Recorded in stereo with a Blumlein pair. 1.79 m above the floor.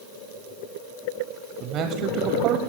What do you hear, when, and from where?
1.6 s a man speaking: 30° right, 1.0 m